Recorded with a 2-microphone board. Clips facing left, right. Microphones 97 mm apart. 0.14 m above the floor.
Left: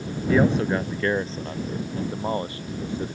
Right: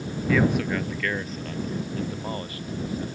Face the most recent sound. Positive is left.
turn(degrees=30)  # may be behind; listen again after turning